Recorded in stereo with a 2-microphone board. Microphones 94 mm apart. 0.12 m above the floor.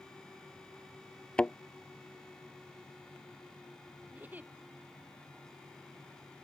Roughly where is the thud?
Centre.